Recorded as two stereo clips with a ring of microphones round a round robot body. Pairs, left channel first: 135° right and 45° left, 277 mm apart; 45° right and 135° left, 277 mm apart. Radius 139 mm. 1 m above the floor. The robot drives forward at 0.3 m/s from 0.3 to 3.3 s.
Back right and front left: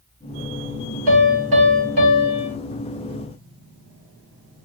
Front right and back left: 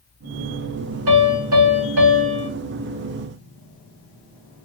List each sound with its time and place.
1.1 s a piano: 105° left, 2 m; by 2.5 s 115° left, 2.5 m